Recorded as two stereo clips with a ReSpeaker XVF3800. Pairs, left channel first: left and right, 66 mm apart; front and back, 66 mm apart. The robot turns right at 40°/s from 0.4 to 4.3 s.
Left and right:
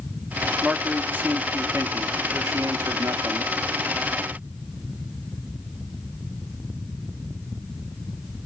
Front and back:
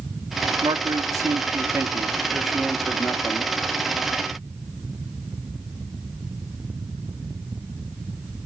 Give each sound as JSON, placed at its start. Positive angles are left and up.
{"t": 0.6, "sound": "a man speaking", "azimuth_deg": -170, "distance_m": 1.3}